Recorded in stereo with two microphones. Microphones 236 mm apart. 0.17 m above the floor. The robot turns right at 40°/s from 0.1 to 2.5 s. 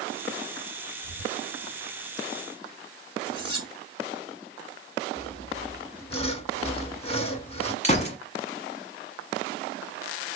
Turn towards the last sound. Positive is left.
turn(degrees=30)  # may be behind; listen again after turning